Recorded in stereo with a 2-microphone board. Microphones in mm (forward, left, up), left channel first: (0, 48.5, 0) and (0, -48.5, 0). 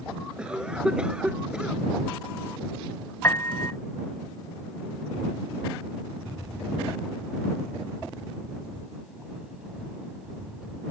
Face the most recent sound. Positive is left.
turn(degrees=-10)  # may be behind; listen again after turning